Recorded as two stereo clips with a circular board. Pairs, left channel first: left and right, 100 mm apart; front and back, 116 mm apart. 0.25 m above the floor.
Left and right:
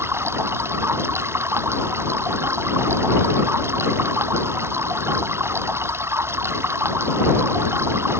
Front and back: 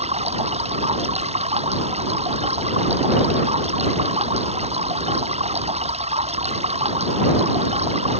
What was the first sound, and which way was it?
Running water, 155° right.